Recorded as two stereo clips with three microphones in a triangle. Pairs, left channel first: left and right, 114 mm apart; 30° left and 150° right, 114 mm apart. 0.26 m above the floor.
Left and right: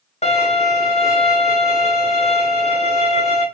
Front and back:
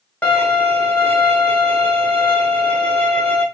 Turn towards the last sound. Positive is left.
turn(degrees=110)